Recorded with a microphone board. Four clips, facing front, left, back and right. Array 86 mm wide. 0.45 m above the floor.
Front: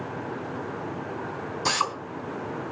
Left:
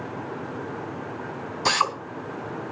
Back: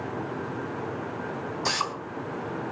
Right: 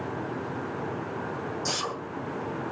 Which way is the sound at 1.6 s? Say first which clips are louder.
Left 13 dB, front 4 dB; 85° left.